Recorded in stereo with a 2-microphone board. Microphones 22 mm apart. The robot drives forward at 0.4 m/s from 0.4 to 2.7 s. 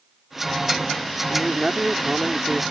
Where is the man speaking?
35° right (ahead or behind); by 2.6 s 30° right (ahead or behind).